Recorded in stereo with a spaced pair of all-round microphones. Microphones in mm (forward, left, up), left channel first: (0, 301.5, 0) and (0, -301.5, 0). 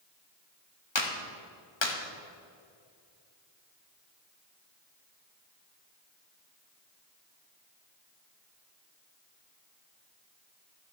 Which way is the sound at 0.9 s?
45° left (ahead or behind).